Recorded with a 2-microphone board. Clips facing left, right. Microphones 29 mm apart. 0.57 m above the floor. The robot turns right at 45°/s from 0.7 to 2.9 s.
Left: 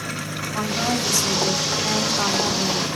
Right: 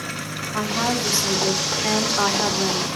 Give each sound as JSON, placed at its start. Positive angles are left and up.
{"t": 0.5, "sound": "a woman speaking", "azimuth_deg": -140, "distance_m": 1.1}